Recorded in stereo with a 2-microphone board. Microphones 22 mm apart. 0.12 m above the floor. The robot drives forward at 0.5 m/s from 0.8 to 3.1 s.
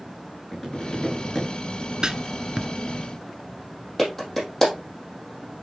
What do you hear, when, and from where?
0.5 s tapping: 5° right (ahead or behind), 5.5 m
2.0 s writing: 30° right (ahead or behind), 0.5 m; by 2.7 s 20° right (ahead or behind), 0.7 m
4.0 s a clap: 10° left (ahead or behind), 4 m